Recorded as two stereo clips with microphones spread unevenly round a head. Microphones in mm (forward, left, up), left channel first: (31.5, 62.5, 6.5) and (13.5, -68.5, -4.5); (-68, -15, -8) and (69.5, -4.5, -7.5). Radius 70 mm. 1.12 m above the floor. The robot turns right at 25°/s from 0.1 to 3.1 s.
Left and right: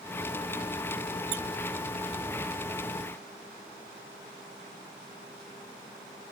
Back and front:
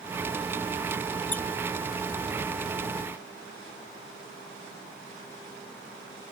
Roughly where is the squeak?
Right.